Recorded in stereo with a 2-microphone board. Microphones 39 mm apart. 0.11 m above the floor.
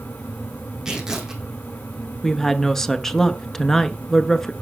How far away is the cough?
I don't hear a cough.